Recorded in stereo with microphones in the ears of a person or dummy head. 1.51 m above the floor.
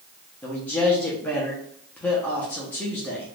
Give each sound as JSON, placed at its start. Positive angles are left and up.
{"t": 0.4, "sound": "a man speaking", "side_deg": 10, "distance_m": 1.0}